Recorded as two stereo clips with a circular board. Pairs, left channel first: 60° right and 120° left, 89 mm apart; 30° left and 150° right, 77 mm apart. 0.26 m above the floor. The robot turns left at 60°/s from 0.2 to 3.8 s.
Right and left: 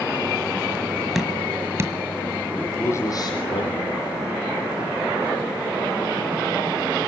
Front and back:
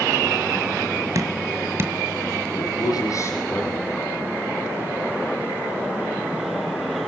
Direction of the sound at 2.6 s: 20° left.